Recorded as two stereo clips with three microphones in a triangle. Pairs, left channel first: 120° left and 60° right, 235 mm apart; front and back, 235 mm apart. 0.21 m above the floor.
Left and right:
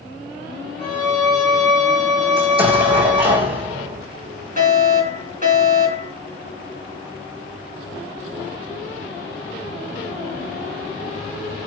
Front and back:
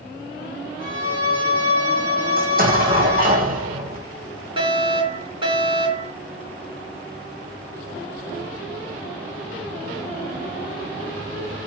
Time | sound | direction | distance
0.8 | a violin | 145° right | 7.5 m
2.4 | an explosion | 125° right | 4.5 m
4.6 | a fire alarm | 115° right | 6 m